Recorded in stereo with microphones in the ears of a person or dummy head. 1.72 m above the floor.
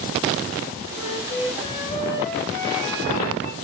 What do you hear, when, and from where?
0.9 s a flute: 20° left (ahead or behind), 1.1 m